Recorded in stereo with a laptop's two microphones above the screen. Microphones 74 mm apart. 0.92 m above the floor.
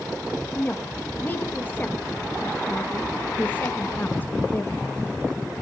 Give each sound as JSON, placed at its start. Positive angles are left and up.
{"t": 0.6, "sound": "a woman speaking", "side_deg": 25, "distance_m": 1.3}